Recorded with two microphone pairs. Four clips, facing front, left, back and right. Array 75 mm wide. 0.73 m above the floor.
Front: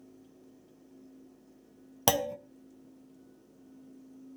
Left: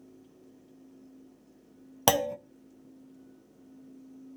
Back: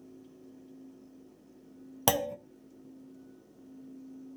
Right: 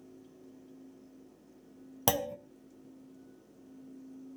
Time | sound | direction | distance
2.1 | a clunk | 95° left | 0.6 m